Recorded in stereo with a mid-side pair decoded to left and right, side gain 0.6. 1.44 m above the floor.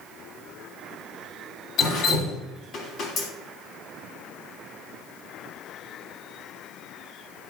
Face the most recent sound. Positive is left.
turn(degrees=50)